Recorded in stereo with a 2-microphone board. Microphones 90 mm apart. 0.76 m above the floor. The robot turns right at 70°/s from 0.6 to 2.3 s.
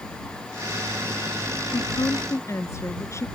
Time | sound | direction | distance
1.7 | a woman speaking | 105° left | ?